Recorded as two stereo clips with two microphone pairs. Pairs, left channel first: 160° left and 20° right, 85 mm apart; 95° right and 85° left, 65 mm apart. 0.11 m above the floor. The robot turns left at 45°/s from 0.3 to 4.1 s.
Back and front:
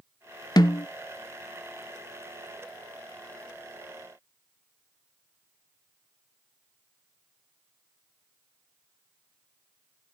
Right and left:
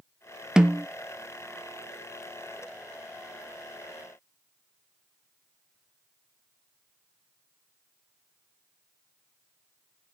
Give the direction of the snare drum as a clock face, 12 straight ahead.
6 o'clock.